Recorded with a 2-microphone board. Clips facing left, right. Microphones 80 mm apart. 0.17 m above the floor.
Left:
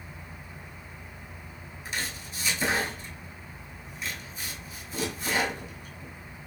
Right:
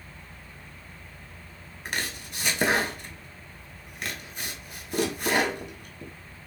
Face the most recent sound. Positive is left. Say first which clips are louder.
# right 2 dB
turn(degrees=-65)  # may be behind; listen again after turning